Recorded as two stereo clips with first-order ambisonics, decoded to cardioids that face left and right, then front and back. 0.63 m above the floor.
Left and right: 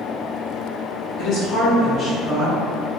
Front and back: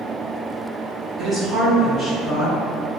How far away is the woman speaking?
About 1.2 m.